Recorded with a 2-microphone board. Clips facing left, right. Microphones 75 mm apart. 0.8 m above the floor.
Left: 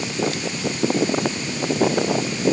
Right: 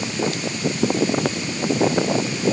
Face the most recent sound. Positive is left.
No sound to turn to.